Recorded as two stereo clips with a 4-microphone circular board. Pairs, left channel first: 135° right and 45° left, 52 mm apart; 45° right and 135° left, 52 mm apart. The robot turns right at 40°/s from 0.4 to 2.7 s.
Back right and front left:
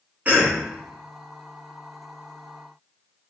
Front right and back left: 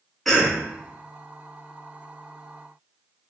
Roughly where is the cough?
Ahead left.